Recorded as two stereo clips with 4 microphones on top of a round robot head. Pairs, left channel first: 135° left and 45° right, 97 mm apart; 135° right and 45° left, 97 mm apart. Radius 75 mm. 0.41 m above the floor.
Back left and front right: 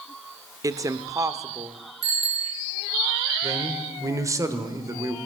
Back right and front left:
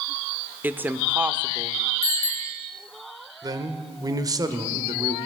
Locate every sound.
0.6 s a woman speaking: 15° right, 0.9 m
2.0 s a bicycle bell: 75° right, 4.5 m
3.4 s a man speaking: 5° left, 1.4 m